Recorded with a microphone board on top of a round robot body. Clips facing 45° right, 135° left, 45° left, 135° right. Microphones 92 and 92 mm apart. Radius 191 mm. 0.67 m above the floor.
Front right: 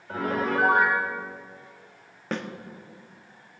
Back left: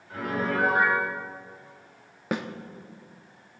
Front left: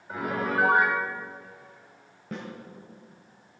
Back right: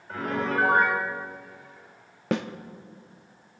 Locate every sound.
0.1 s a piano: 35° right, 3.5 m
2.3 s a snare drum: 145° right, 0.7 m